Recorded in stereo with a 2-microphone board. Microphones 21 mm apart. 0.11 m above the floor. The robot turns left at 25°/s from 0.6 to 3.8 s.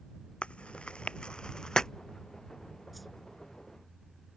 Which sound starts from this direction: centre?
A whoosh, at 2.9 s.